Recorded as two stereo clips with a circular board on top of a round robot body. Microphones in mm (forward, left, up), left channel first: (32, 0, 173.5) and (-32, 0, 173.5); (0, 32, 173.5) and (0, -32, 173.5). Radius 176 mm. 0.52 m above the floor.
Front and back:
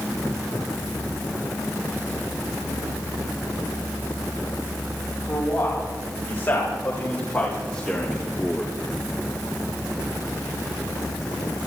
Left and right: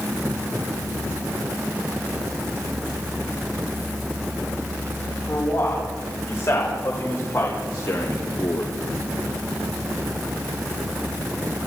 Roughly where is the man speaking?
Ahead left.